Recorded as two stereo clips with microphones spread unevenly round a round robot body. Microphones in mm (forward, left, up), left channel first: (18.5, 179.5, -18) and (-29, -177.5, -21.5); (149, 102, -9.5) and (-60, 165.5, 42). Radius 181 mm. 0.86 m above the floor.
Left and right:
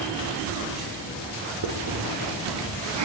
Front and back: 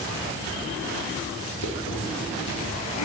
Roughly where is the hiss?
Ahead right.